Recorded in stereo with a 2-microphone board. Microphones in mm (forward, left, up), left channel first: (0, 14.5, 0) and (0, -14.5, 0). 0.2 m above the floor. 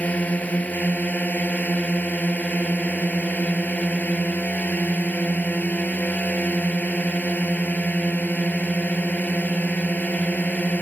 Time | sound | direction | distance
0.0 | a drone | 60° left (ahead or behind) | ?